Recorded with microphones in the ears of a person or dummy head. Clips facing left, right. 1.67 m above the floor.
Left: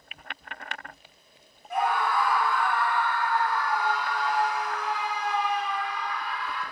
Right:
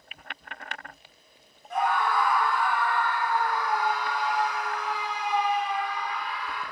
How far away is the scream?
About 1.4 m.